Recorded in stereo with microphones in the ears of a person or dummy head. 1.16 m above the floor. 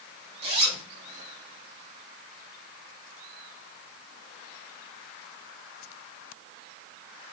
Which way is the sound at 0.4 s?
40° right (ahead or behind).